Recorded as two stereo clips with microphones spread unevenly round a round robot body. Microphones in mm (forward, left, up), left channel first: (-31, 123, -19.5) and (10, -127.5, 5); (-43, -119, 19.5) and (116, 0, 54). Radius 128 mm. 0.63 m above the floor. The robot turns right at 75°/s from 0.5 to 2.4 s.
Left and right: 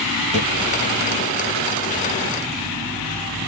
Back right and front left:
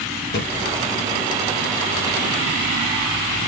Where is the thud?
165° left, 1.8 m.